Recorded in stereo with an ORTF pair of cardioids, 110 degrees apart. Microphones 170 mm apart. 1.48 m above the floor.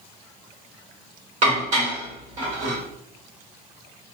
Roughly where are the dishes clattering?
Ahead right.